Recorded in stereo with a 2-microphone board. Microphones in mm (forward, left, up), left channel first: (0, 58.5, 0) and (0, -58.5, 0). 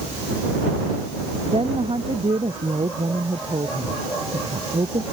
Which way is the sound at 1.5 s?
50° right (ahead or behind).